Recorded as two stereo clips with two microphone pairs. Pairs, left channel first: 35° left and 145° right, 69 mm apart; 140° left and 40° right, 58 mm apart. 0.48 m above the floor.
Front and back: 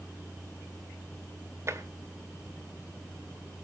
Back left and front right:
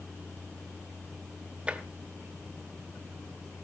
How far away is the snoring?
No snoring in this recording.